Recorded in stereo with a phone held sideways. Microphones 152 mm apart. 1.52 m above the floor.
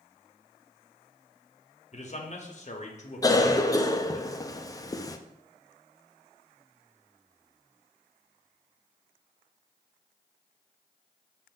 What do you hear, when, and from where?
1.9 s a man speaking: 45° left (ahead or behind), 0.8 m
3.2 s a cough: 25° left (ahead or behind), 0.5 m